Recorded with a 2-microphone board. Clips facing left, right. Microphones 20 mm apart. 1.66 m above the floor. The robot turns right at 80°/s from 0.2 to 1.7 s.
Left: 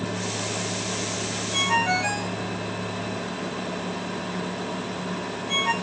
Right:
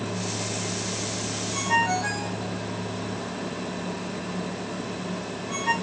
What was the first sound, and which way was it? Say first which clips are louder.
A ringtone: left 1 dB; 70° left (ahead or behind).